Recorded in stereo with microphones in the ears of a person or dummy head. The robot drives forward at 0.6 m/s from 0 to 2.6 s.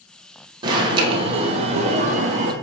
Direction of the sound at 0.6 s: 25° right (ahead or behind).